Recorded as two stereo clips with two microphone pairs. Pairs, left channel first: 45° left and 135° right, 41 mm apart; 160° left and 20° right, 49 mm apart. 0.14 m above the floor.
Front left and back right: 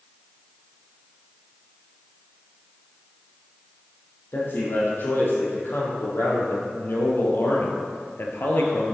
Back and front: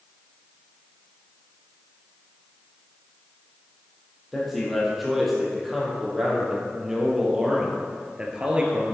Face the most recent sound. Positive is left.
turn(degrees=40)